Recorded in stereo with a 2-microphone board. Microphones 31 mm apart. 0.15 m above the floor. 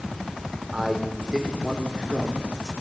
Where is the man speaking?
20° right (ahead or behind), 8.5 m; by 2.7 s 15° right (ahead or behind), 10 m.